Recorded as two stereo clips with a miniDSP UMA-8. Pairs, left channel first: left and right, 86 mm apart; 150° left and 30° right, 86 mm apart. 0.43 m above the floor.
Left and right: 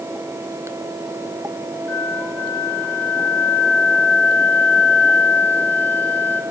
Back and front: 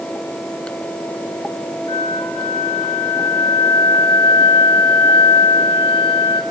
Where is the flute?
160° left, 3 m.